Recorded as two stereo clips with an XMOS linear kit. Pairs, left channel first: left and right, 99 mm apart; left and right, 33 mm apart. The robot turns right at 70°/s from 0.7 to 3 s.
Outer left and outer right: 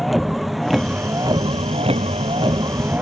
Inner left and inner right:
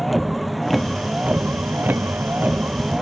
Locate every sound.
0.0 s a vehicle: straight behind; by 3.0 s 20° right